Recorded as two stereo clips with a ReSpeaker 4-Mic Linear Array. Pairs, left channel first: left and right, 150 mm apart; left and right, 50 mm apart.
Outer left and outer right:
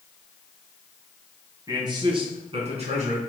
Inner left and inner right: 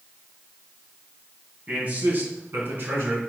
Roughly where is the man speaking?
Right.